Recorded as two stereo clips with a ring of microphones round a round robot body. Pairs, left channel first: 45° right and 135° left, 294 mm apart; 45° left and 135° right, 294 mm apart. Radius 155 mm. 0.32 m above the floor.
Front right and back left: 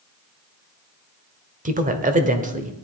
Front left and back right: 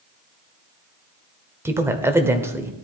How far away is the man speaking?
About 1.5 m.